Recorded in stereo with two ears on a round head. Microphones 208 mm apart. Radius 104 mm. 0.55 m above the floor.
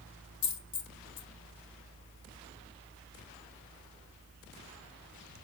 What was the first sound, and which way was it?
A dropped coin, 55° left (ahead or behind).